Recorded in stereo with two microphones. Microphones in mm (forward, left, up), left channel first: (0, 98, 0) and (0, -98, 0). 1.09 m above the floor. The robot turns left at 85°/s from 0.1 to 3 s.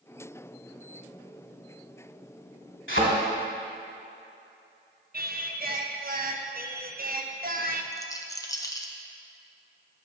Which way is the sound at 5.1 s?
50° right (ahead or behind).